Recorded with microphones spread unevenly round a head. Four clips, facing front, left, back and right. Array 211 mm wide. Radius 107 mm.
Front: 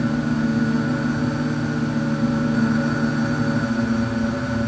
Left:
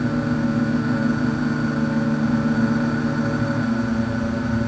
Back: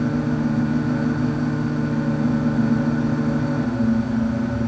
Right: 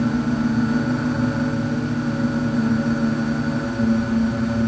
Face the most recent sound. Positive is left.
No sound to turn to.